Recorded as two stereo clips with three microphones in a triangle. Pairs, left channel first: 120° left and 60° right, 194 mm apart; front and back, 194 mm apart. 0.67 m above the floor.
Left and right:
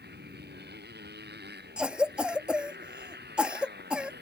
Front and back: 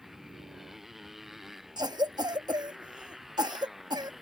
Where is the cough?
140° right.